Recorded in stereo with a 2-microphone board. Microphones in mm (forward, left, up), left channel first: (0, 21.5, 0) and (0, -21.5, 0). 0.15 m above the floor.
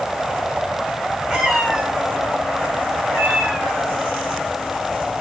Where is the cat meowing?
15° right (ahead or behind), 1.4 m; by 4.0 s 60° right (ahead or behind), 1.8 m.